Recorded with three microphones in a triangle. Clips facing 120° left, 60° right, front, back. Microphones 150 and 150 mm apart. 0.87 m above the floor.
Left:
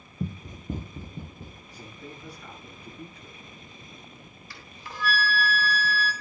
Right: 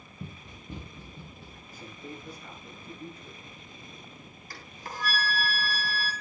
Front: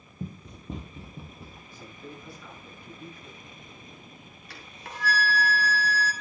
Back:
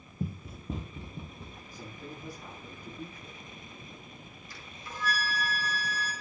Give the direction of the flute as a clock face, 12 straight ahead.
1 o'clock.